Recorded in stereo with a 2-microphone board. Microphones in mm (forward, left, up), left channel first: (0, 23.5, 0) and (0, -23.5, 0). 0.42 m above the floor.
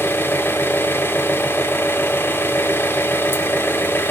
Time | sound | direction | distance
0.0 | an engine running | 50° left (ahead or behind) | 0.9 m